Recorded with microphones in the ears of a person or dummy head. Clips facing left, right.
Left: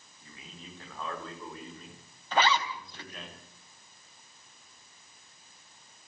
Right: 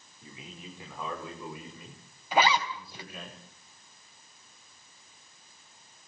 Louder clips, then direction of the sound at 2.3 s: Right 2 dB; 15° right (ahead or behind).